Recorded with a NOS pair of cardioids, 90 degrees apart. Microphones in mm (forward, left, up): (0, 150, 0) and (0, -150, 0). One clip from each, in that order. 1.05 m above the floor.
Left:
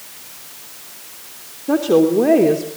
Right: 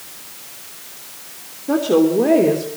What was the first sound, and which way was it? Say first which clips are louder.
A woman speaking: left 1 dB; 15° left.